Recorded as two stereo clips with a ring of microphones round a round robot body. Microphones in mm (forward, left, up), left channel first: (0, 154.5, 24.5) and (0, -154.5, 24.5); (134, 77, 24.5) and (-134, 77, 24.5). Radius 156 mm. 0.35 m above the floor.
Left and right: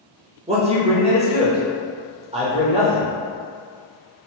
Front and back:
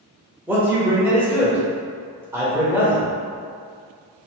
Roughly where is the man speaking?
Right.